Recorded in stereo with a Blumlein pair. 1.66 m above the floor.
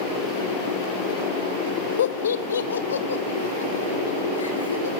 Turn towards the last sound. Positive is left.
turn(degrees=75)